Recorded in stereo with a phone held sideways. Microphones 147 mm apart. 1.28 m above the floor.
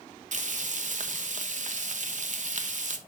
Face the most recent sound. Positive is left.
turn(degrees=-60)  # may be behind; listen again after turning